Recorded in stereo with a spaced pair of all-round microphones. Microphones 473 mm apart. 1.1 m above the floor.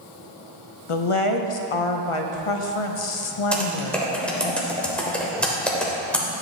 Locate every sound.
0.9 s a woman speaking: 80° left, 0.7 m
3.5 s typing on a keyboard: centre (ahead or behind), 1.1 m